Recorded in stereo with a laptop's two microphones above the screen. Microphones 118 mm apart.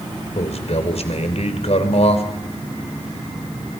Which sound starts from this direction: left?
A man speaking, at 0.3 s.